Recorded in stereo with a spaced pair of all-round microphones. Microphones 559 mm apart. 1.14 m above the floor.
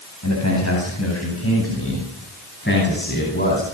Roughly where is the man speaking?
Left.